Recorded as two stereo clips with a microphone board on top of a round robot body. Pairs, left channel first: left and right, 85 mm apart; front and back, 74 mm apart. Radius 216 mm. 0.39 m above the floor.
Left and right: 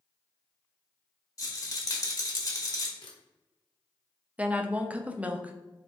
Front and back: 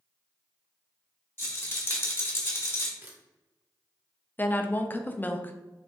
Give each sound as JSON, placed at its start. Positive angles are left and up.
{"t": 1.4, "sound": "a rattle", "azimuth_deg": 50, "distance_m": 1.5}
{"t": 3.0, "sound": "a camera shutter", "azimuth_deg": 120, "distance_m": 1.4}
{"t": 4.4, "sound": "a woman speaking", "azimuth_deg": -35, "distance_m": 0.8}